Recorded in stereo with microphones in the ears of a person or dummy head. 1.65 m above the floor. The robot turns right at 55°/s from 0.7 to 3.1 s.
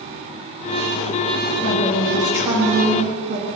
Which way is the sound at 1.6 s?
140° left.